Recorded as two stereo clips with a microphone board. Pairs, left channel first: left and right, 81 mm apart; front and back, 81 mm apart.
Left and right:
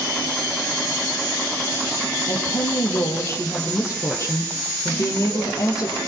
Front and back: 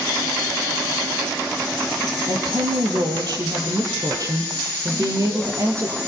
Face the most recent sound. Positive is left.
turn(degrees=130)